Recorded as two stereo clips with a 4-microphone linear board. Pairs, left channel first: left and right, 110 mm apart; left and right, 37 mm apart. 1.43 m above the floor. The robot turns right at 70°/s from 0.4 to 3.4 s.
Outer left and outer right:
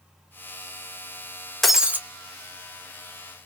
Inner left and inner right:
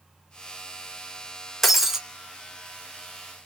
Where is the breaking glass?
Centre (ahead or behind), 0.6 m; by 2.0 s 20° right (ahead or behind), 0.6 m.